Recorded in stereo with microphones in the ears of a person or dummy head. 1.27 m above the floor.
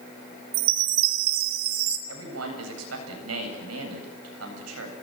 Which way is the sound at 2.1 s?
85° right.